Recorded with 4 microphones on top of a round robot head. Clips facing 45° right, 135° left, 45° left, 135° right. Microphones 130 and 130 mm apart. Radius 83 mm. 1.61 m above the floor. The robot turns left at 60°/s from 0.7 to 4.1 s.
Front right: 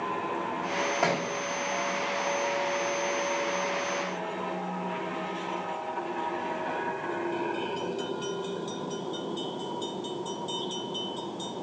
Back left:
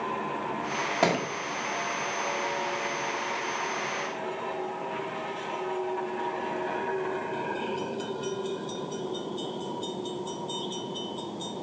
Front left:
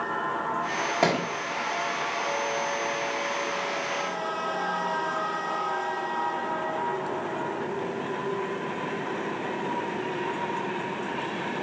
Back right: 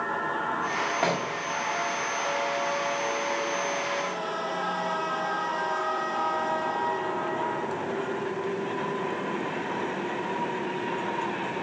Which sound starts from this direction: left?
A thud, at 1.0 s.